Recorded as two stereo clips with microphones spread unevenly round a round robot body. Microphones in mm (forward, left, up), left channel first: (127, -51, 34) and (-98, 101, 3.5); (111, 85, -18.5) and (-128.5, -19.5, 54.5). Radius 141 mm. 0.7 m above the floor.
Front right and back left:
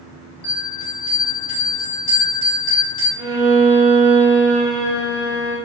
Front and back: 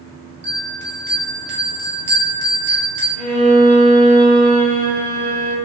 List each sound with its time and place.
0.4 s a bell: 105° right, 0.8 m
3.2 s a violin: 75° left, 0.6 m